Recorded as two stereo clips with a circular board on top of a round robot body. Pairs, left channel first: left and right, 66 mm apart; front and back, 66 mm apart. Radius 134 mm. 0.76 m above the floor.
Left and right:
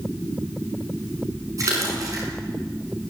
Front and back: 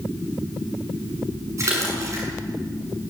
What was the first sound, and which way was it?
A splash, 130° right.